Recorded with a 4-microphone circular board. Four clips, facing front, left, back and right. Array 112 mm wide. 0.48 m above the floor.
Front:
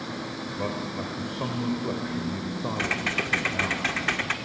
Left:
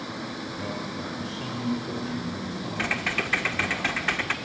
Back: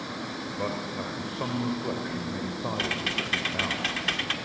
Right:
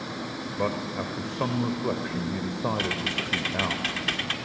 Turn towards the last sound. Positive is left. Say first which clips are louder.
# left 1 dB, front 2 dB
turn(degrees=50)